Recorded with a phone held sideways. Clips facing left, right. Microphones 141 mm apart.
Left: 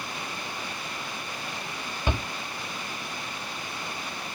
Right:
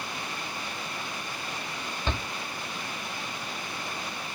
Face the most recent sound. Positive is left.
turn(degrees=15)  # may be behind; listen again after turning